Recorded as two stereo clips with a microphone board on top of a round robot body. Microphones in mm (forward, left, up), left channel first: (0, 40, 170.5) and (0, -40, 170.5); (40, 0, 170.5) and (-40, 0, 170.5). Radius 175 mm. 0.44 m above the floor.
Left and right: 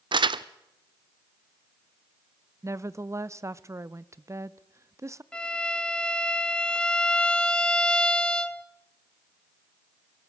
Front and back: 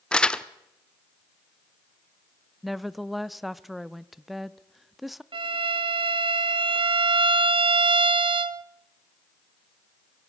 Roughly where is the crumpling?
Right.